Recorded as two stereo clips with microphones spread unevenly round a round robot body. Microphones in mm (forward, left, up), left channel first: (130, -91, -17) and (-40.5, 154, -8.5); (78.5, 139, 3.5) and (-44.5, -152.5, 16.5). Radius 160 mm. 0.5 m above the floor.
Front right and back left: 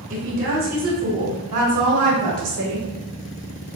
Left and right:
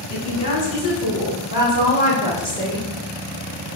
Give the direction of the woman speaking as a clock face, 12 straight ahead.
9 o'clock.